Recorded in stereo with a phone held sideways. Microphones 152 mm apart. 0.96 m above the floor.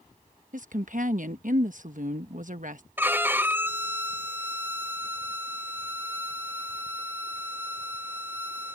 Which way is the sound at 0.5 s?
60° right (ahead or behind).